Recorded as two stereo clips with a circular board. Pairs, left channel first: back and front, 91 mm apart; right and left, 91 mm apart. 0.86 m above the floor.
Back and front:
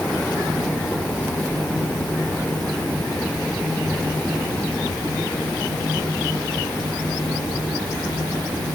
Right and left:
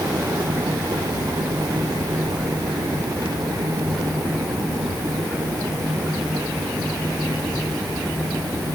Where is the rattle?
No rattle in this recording.